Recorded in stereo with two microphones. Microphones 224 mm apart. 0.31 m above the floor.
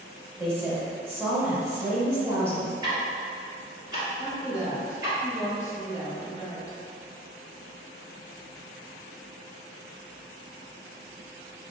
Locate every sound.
0.4 s a woman speaking: 10° right (ahead or behind), 1.1 m
2.8 s ticking: 20° right (ahead or behind), 1.8 m
4.2 s a woman speaking: 15° left (ahead or behind), 1.4 m